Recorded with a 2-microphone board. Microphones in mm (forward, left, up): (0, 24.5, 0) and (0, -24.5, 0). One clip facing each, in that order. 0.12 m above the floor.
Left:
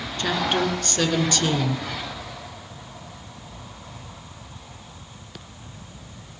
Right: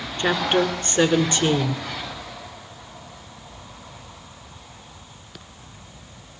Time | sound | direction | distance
0.2 | a woman speaking | 25° right (ahead or behind) | 1.1 m